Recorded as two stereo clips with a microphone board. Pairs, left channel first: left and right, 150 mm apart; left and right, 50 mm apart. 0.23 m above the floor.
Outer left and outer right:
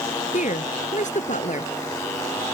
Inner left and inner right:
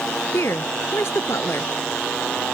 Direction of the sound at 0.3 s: 55° left (ahead or behind).